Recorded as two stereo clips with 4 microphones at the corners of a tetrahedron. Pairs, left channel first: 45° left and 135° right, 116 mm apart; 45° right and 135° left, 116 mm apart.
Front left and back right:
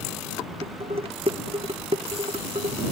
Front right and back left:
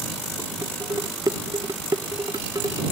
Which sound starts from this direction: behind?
Dishes clattering, at 0.6 s.